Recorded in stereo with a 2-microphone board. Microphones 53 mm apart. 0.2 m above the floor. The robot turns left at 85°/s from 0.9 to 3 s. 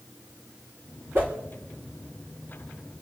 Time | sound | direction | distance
1.1 | a whoosh | 45° right (ahead or behind) | 3 m